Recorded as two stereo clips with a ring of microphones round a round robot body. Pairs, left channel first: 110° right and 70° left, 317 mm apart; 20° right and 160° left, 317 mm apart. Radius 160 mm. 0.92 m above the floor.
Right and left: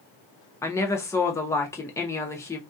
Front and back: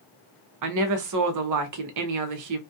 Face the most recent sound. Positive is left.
turn(degrees=170)